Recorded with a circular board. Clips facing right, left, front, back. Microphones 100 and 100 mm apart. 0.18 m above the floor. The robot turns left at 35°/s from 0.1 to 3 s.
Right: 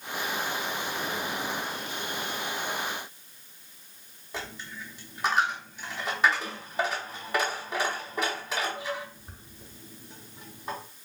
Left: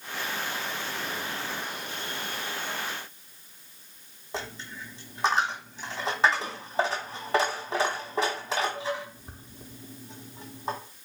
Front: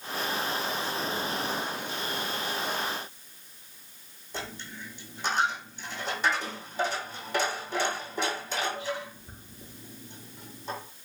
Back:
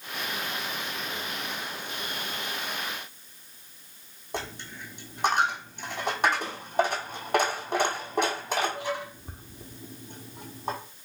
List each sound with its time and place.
4.3 s a dropped coin: 150° left, 1.0 m